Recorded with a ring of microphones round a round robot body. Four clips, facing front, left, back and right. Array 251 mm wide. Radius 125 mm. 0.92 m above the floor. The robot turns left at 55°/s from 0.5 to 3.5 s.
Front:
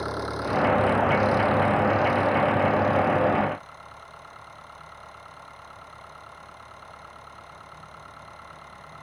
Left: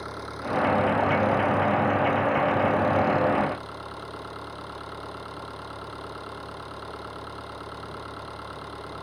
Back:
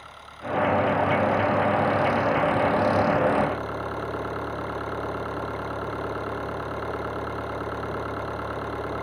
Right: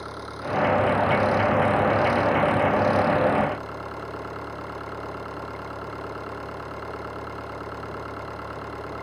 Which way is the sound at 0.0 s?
Straight ahead.